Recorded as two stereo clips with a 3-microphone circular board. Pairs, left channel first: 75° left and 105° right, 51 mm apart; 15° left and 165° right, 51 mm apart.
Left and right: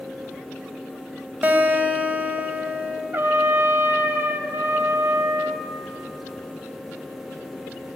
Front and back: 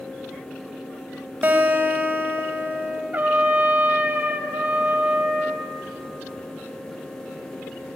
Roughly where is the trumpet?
Behind right.